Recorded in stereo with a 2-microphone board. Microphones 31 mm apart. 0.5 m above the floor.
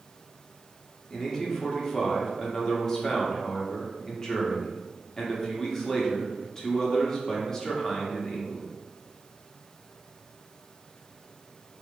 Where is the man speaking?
20° left (ahead or behind), 0.9 m.